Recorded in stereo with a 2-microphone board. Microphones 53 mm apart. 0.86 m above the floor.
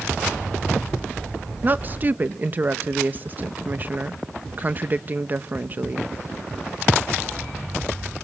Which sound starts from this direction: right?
A woman speaking, at 1.6 s.